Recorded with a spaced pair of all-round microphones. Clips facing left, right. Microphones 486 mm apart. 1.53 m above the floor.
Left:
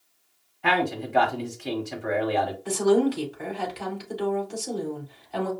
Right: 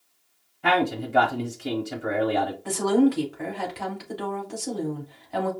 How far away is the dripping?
No dripping in this recording.